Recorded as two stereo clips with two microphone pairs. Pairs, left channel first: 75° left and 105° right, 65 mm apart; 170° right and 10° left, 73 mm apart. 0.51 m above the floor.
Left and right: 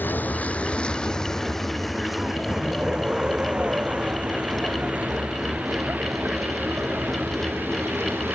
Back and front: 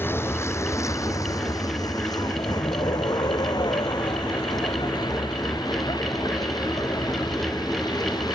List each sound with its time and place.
0.0 s a vehicle: 135° left; by 8.4 s 160° right